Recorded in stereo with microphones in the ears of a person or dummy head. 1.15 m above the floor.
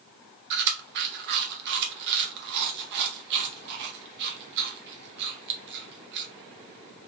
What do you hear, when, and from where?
0.5 s chewing: 55° right (ahead or behind), 0.7 m